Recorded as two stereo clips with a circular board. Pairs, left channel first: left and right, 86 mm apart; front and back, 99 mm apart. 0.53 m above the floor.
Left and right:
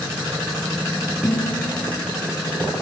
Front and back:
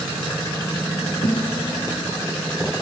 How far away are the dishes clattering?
About 8.5 m.